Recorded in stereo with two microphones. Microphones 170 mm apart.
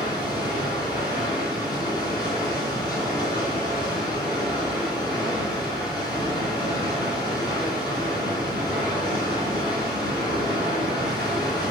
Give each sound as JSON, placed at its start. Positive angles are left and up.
{"t": 0.0, "sound": "running water", "side_deg": 25, "distance_m": 2.5}